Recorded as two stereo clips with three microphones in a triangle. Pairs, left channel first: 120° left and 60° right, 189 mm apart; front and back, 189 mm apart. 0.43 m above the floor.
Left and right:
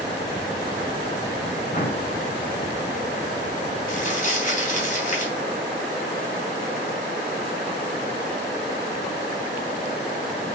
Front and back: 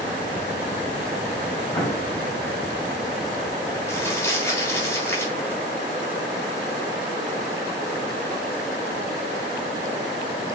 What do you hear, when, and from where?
1.7 s an explosion: 75° left, 2 m
3.9 s crumpling: 75° left, 3 m